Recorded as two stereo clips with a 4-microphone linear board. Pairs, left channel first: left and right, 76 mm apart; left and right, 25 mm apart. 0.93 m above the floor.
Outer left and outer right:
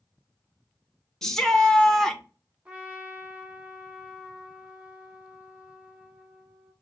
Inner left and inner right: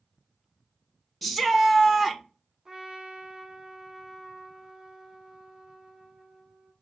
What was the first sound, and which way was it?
A shout, 5° left (ahead or behind).